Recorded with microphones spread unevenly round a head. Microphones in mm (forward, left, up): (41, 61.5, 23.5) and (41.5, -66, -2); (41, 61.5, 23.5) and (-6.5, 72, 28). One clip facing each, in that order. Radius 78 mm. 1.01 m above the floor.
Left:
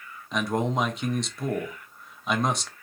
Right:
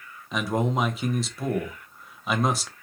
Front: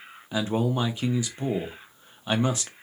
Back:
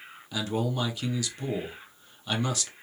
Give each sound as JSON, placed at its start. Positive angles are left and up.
{"t": 0.3, "sound": "a man speaking", "azimuth_deg": -25, "distance_m": 0.7}